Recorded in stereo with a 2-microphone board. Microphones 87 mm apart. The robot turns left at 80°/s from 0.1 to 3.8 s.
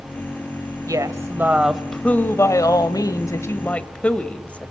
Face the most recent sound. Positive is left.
turn(degrees=20)